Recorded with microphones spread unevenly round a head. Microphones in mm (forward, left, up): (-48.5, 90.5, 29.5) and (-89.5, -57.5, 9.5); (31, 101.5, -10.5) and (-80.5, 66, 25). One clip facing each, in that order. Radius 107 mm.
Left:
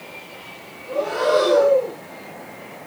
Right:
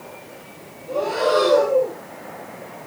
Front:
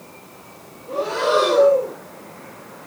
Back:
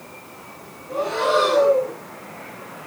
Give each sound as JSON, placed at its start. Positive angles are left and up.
{"t": 0.9, "sound": "breathing", "azimuth_deg": -25, "distance_m": 8.5}